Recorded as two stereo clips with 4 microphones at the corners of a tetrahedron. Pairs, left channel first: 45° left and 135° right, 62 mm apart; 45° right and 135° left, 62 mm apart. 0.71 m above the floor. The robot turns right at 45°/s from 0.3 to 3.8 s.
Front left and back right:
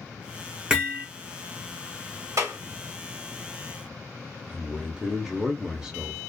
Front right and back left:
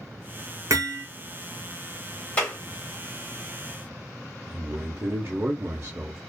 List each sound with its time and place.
0.7 s hammering: 150° left, 1.0 m; by 1.1 s 170° left, 1.0 m
2.4 s a clap: 115° right, 1.2 m; by 2.6 s 105° right, 1.2 m
4.5 s a man speaking: 155° left, 0.7 m